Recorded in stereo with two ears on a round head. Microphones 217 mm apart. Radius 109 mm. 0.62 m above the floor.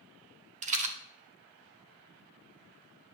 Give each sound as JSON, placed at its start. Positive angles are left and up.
{"t": 0.6, "sound": "a rattle", "side_deg": -30, "distance_m": 1.4}